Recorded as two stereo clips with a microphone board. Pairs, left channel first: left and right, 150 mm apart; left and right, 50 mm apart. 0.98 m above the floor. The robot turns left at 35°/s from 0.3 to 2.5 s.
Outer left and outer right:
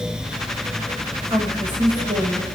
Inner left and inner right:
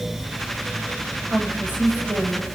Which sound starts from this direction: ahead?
A woman speaking, at 1.3 s.